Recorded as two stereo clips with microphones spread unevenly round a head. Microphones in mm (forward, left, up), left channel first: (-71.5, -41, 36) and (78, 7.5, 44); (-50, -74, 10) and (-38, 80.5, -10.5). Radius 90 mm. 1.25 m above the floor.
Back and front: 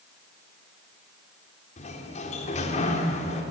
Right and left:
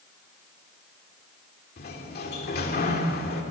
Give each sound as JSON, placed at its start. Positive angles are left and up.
{"t": 1.8, "sound": "a sliding door", "azimuth_deg": -115, "distance_m": 3.5}